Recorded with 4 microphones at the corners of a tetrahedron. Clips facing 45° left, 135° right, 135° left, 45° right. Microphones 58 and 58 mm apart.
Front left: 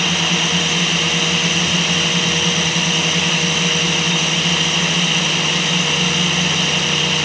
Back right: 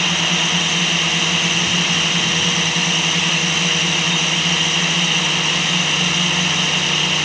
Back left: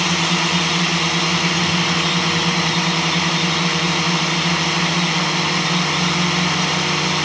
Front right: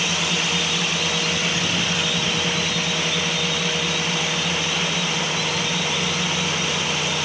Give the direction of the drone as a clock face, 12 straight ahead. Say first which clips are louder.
Front left 1 dB, back left 5 dB; 7 o'clock.